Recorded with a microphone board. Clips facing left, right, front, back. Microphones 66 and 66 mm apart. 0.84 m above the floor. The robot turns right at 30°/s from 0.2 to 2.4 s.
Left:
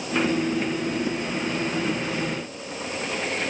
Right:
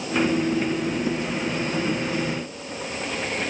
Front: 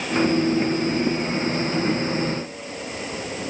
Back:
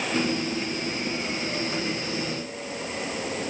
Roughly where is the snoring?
I don't hear snoring.